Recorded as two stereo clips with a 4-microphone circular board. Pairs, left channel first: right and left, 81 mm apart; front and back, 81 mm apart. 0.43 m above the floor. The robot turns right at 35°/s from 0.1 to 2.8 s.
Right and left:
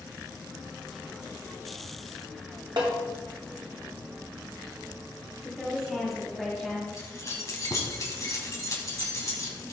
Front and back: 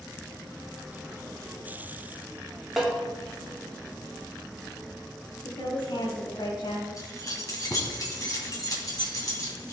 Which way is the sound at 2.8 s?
95° left.